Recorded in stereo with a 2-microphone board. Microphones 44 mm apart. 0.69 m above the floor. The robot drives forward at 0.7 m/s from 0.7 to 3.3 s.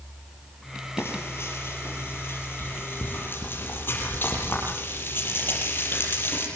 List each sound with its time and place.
1.0 s frying: 60° left (ahead or behind), 6 m; by 6.5 s 50° left (ahead or behind), 7 m